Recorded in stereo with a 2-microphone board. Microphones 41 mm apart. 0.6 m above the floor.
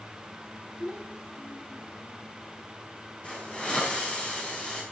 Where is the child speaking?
70° left (ahead or behind), 8.5 m.